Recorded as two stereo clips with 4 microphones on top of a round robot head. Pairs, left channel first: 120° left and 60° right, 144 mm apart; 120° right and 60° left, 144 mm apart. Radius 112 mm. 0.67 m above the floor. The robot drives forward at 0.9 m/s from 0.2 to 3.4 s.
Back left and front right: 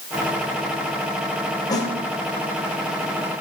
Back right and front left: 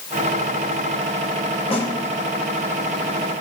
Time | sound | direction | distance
1.7 | a snare drum | 175° right | 3 m